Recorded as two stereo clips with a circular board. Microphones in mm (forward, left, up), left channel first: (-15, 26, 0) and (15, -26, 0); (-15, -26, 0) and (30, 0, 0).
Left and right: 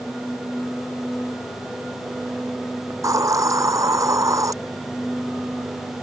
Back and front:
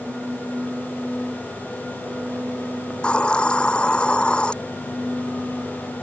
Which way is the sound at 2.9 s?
80° right.